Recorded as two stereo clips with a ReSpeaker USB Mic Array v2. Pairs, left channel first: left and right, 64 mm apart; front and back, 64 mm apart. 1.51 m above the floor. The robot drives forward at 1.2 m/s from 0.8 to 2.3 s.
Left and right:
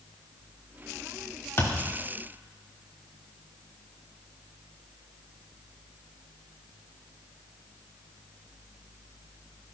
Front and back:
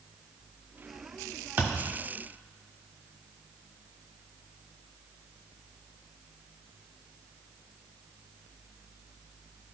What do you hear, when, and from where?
1.6 s a thud: 130° left, 1.6 m; by 1.9 s 140° left, 1.9 m